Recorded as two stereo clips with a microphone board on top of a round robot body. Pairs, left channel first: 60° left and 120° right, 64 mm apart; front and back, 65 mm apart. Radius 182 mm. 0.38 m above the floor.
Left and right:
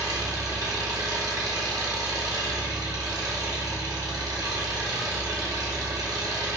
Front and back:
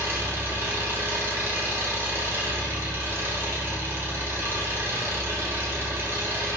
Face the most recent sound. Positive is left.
turn(degrees=-130)